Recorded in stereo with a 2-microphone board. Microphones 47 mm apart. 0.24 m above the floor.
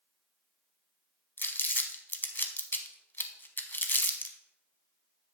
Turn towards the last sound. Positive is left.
turn(degrees=45)  # may be behind; listen again after turning